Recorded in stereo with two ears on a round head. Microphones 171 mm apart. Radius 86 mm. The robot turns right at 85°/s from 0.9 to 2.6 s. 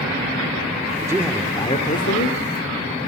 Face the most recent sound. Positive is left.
turn(degrees=110)